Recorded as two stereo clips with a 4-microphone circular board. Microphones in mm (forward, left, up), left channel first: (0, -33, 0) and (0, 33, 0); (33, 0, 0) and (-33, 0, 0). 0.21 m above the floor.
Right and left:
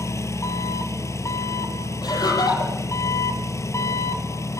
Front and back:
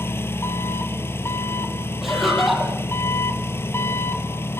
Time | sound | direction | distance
0.0 | an engine running | 50° right | 1.0 m
2.0 | laughter | 90° right | 8 m